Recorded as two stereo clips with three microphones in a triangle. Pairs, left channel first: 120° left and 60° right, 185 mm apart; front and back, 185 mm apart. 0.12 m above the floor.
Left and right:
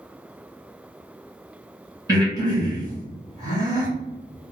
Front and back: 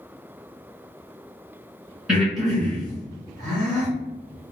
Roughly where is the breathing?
Right.